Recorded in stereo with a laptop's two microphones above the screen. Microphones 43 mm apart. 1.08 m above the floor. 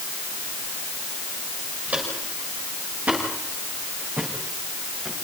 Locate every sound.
1.9 s footsteps: 35° right (ahead or behind), 8.5 m; by 5.1 s 20° right (ahead or behind), 7 m